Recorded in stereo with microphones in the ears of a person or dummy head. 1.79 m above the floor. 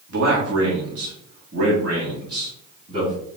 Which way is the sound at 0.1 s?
70° right (ahead or behind).